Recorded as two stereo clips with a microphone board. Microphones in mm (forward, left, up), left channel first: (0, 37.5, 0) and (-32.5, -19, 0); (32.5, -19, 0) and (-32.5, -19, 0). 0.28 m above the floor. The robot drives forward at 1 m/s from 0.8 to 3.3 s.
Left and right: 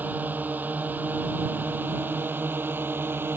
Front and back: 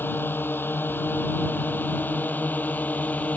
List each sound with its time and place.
0.0 s a drone: 55° right; by 3.4 s 65° right